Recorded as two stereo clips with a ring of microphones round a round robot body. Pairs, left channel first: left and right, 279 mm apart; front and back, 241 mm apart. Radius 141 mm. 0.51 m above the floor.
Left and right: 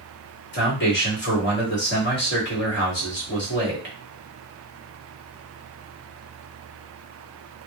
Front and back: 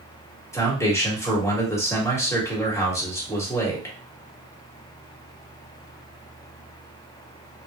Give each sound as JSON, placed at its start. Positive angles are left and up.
{"t": 0.5, "sound": "a man speaking", "azimuth_deg": 75, "distance_m": 1.6}